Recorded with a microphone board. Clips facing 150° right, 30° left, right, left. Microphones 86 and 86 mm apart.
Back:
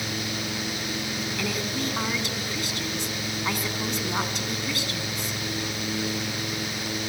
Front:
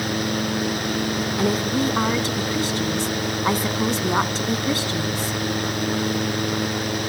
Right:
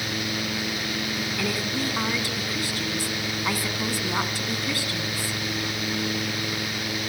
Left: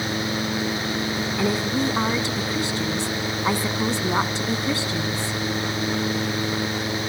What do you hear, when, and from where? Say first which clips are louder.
1.4 s a woman speaking: front 9 dB, left 6 dB; 45° left, 1.2 m